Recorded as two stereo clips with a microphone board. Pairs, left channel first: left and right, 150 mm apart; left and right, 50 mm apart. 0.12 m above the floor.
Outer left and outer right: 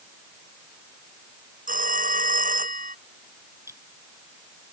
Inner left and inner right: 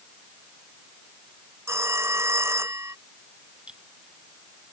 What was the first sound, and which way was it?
A phone ringing, 65° right (ahead or behind).